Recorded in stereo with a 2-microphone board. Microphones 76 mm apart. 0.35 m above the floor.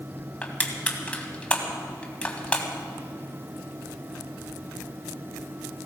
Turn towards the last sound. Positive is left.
turn(degrees=15)  # may be behind; listen again after turning